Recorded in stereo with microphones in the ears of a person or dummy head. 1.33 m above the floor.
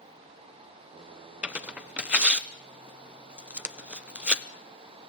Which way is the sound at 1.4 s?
Centre (ahead or behind).